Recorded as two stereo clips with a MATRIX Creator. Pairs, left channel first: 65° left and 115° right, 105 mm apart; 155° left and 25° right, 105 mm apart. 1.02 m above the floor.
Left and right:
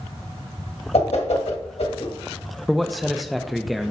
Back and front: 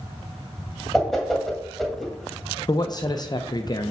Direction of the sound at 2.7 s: 155° left.